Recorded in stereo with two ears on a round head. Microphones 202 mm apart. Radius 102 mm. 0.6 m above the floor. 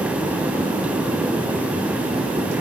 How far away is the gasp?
I don't hear a gasp.